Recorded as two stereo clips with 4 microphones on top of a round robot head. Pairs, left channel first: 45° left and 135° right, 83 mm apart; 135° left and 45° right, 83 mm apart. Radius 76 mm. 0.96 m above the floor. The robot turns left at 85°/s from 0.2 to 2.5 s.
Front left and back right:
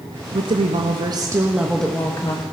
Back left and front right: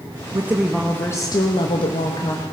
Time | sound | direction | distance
0.3 | a woman speaking | 100° right | 1.0 m